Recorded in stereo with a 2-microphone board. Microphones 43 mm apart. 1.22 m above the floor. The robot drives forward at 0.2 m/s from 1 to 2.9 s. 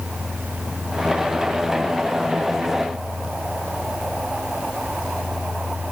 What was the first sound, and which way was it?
Only background noise.